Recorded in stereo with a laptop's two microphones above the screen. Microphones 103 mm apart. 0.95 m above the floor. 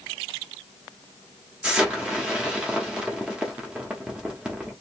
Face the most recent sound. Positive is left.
turn(degrees=-10)  # may be behind; listen again after turning